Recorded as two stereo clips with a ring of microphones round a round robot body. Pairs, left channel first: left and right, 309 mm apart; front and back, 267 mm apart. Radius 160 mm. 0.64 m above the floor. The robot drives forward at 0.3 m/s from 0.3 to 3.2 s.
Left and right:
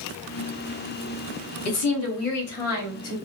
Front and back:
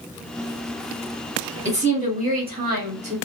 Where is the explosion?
No explosion in this recording.